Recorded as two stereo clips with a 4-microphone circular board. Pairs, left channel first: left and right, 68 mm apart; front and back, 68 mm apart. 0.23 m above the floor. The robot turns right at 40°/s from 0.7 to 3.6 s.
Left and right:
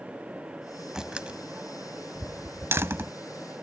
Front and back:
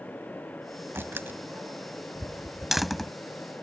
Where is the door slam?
170° right; by 3.1 s 80° right.